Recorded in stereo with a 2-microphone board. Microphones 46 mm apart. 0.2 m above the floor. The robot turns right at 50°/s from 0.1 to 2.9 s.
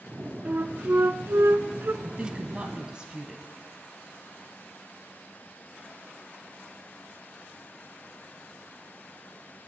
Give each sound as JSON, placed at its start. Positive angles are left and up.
{"t": 0.5, "sound": "a flute", "azimuth_deg": -135, "distance_m": 0.9}
{"t": 2.0, "sound": "a woman speaking", "azimuth_deg": -85, "distance_m": 1.2}